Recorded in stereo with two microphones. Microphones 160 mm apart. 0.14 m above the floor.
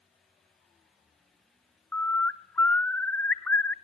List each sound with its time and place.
1.9 s a bird: 10° left (ahead or behind), 0.6 m